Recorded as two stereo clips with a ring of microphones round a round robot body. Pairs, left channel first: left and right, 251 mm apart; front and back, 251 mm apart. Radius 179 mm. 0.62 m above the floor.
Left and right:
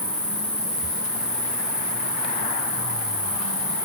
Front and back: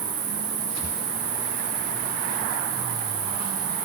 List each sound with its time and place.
0.0 s an insect: 175° left, 2 m